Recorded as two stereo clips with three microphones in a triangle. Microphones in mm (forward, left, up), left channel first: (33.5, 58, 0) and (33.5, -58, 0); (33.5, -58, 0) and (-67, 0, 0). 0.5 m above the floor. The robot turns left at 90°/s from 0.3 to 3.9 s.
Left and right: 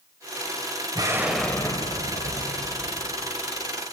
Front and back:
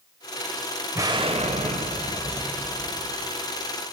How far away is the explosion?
About 0.7 m.